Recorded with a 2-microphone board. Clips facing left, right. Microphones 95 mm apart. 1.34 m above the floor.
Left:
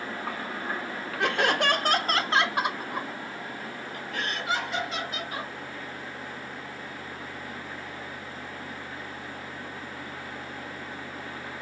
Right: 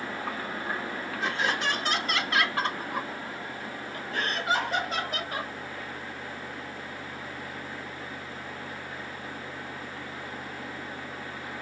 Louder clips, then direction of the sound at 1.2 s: Left 5 dB; 70° left (ahead or behind).